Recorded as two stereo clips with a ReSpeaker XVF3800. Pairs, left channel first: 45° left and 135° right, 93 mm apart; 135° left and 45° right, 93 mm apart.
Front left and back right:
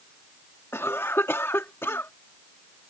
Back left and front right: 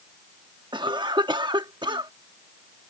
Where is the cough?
15° right.